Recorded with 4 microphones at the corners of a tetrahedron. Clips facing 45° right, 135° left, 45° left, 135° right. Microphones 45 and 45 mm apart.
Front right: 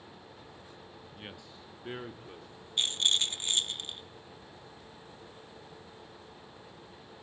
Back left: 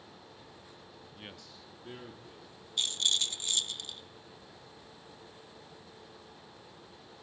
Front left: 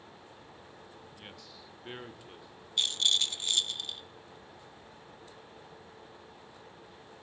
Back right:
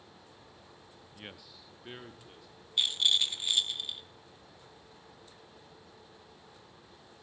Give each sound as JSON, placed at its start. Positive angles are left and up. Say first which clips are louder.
{"t": 1.1, "sound": "a man speaking", "louder": "front right 2 dB, even", "azimuth_deg": -130, "distance_m": 0.5}
{"t": 2.8, "sound": "a rattle", "louder": "front right 2 dB, back right 1 dB", "azimuth_deg": -65, "distance_m": 0.5}